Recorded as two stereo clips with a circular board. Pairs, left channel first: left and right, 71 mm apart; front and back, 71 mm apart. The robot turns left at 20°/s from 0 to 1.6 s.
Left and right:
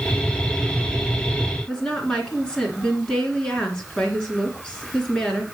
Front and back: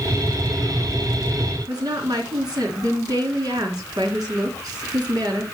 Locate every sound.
1.7 s a woman speaking: 170° left, 3 m